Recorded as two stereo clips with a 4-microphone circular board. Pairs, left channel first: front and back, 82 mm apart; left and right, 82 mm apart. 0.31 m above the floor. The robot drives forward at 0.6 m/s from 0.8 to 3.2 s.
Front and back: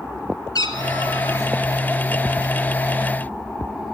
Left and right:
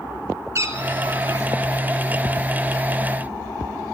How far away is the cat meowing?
About 1.3 m.